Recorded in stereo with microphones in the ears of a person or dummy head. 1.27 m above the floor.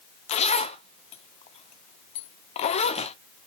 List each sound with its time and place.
0.3 s a zipper: 35° left (ahead or behind), 0.7 m